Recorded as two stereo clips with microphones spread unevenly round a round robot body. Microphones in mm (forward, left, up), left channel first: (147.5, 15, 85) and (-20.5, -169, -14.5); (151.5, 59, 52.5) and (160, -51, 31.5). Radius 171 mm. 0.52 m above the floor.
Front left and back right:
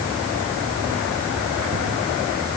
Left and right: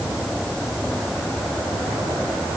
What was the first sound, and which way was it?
Only background noise.